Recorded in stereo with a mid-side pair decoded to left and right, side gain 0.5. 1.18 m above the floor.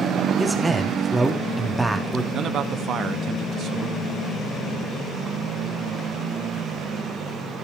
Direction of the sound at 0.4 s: 10° right.